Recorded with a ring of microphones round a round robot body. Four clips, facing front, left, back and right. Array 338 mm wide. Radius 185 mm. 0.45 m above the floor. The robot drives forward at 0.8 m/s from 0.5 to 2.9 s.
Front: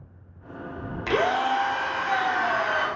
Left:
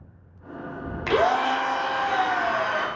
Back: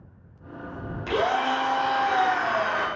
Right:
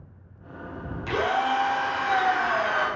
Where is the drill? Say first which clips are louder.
Left 3 dB, front 1 dB; 60° left, 0.5 m; by 2.9 s 165° left, 1.4 m.